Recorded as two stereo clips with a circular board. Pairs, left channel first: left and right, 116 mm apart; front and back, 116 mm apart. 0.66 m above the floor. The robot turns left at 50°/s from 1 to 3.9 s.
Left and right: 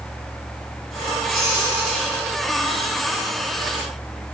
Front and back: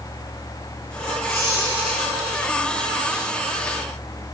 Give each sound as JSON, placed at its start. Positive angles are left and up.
{"t": 1.3, "sound": "a squeak", "azimuth_deg": 125, "distance_m": 6.5}